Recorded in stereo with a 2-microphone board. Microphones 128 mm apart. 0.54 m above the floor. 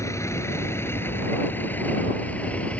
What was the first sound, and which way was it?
A vehicle, 20° left (ahead or behind).